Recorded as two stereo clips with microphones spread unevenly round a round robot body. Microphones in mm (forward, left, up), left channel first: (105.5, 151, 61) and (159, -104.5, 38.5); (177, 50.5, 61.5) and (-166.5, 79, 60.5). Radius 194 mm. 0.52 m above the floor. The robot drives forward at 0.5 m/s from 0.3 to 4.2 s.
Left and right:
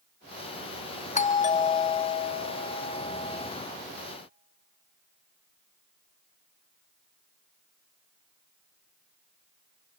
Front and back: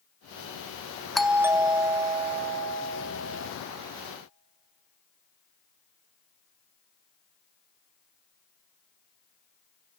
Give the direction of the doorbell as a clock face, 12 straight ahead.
9 o'clock.